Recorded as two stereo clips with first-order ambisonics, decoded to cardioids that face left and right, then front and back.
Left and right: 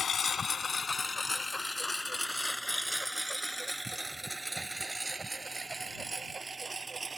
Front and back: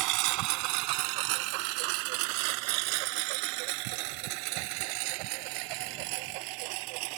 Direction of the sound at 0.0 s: 155° left.